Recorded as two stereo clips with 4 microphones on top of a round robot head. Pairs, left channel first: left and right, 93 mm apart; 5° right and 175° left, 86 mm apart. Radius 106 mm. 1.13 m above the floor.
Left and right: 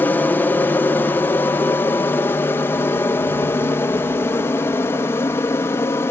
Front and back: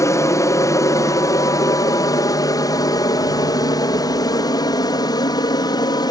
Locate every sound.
0.0 s an aircraft: 30° left